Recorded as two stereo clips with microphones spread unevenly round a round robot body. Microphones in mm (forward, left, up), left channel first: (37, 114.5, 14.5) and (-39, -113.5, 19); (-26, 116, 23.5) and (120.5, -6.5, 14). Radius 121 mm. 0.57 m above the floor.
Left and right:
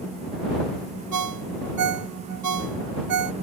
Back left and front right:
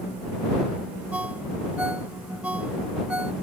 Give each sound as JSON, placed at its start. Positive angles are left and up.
{"t": 1.1, "sound": "a ringtone", "azimuth_deg": -125}